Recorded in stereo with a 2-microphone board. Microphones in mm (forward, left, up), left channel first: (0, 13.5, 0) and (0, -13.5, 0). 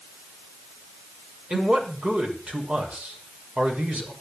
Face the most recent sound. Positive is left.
turn(degrees=-55)  # may be behind; listen again after turning